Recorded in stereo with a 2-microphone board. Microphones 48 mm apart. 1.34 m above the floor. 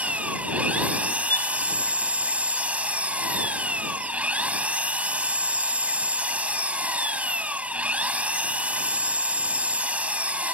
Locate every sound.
0.0 s an engine running: 25° right (ahead or behind)
1.3 s a violin: 45° left (ahead or behind)